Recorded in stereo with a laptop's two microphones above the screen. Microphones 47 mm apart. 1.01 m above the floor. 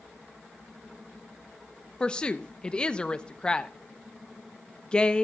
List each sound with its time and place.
2.0 s a woman speaking: 20° left (ahead or behind), 0.7 m